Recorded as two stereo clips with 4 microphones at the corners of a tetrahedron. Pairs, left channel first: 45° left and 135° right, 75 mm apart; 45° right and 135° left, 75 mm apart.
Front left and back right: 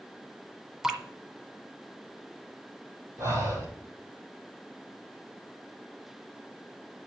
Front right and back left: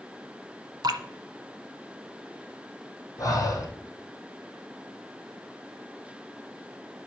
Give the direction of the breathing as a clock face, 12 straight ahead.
3 o'clock.